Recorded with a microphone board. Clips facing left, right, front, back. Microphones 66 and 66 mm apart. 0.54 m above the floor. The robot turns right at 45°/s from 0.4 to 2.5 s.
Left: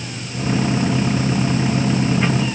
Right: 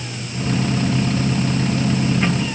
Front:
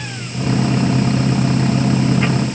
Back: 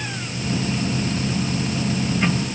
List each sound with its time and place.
Only background noise.